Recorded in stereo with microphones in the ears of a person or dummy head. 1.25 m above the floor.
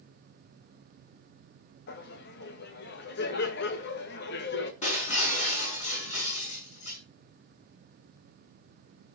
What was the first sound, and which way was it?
Laughter, 60° left (ahead or behind).